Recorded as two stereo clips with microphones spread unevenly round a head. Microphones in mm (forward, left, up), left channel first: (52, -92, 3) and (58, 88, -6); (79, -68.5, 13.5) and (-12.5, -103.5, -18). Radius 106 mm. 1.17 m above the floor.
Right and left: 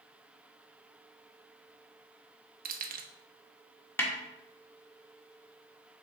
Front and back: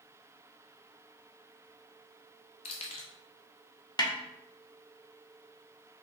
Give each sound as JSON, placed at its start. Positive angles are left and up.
{"t": 2.6, "sound": "keys jangling", "azimuth_deg": 50, "distance_m": 0.9}
{"t": 4.0, "sound": "a snare drum", "azimuth_deg": -15, "distance_m": 1.8}